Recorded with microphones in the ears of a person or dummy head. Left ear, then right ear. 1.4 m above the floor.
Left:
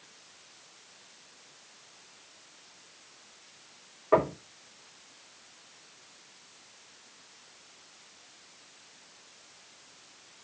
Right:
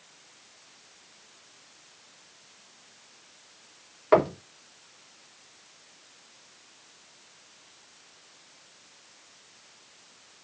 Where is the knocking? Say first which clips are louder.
Right 3 dB; 70° right (ahead or behind), 3 m.